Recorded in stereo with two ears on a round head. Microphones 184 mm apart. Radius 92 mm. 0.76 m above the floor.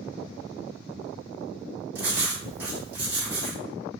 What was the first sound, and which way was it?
Writing, 10° right (ahead or behind).